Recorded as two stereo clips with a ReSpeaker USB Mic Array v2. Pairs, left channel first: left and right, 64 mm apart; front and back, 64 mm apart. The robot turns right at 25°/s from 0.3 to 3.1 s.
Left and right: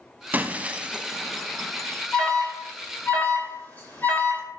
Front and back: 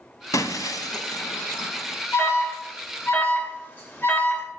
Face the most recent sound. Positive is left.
turn(degrees=40)